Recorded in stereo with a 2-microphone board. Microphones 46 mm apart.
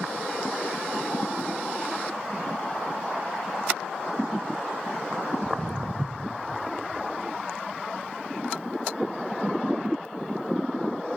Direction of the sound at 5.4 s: 55° right (ahead or behind).